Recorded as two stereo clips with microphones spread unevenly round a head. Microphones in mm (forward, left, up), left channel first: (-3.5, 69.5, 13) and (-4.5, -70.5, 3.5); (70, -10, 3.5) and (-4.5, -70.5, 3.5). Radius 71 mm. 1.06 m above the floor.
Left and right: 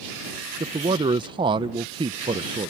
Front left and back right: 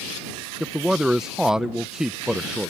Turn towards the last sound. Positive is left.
turn(degrees=-60)